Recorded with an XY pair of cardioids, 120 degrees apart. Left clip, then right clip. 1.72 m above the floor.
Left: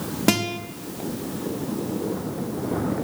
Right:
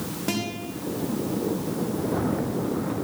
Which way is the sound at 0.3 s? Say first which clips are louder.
Left 7 dB; 50° left.